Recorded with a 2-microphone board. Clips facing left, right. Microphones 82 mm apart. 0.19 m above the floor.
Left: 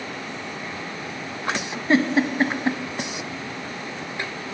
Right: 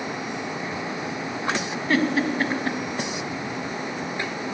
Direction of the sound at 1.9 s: 20° left (ahead or behind).